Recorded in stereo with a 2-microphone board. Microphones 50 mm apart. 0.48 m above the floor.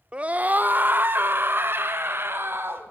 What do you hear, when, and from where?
0.1 s a scream: 20° right (ahead or behind), 0.8 m; by 2.9 s 50° right (ahead or behind), 3 m